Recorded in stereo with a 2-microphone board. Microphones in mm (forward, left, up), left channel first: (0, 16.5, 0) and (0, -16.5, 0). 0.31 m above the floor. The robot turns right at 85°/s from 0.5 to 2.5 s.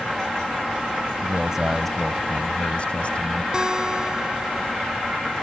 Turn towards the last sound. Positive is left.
turn(degrees=-25)  # may be behind; listen again after turning